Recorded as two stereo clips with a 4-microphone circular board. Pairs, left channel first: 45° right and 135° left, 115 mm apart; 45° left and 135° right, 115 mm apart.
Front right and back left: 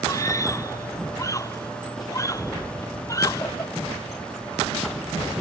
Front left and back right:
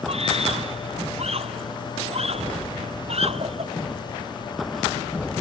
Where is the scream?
110° right; by 3.7 s 105° right.